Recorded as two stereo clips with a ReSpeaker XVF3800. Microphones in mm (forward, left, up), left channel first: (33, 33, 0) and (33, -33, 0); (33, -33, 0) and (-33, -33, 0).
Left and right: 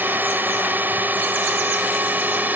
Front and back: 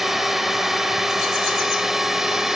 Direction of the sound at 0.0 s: 100° right.